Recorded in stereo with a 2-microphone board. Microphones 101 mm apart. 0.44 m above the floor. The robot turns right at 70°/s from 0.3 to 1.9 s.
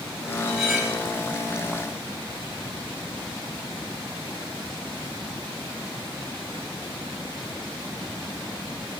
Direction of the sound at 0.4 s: 170° left.